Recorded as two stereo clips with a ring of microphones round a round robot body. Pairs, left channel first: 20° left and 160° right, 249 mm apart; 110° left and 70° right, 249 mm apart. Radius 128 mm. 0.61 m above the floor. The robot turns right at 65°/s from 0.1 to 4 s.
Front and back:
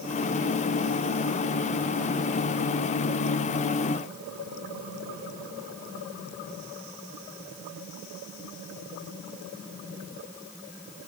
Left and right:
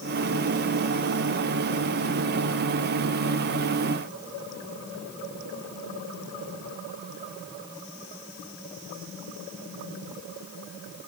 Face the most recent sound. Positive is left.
No sound to turn to.